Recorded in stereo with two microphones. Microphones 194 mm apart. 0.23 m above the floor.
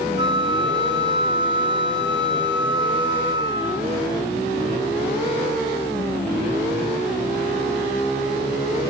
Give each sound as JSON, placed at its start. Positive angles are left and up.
{"t": 0.2, "sound": "a flute", "side_deg": -25, "distance_m": 1.0}